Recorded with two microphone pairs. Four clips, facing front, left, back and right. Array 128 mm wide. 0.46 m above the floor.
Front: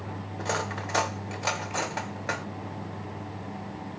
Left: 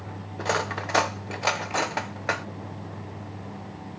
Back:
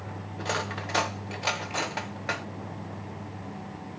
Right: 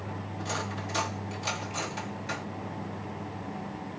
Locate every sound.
0.4 s cutlery clinking: 85° left, 0.8 m